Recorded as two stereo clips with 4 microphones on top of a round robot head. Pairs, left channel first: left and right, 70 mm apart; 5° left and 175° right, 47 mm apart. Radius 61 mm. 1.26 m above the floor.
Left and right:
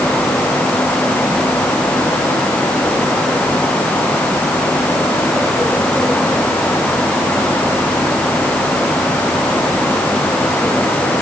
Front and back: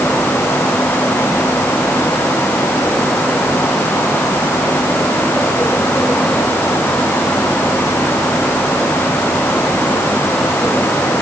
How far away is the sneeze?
No sneeze in this recording.